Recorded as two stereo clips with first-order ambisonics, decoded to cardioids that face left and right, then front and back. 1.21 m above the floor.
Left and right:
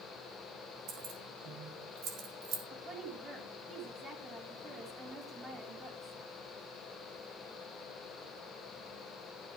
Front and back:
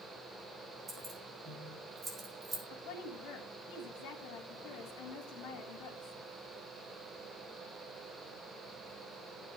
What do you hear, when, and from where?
0.9 s keys jangling: 115° right, 4.5 m
2.7 s a woman speaking: 20° right, 3.5 m